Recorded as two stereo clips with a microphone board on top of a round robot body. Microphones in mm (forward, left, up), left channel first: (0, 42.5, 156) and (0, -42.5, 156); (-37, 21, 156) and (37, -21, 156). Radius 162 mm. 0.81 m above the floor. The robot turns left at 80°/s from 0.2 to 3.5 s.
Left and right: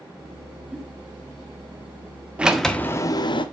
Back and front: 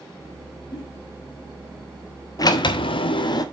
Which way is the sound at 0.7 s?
170° right.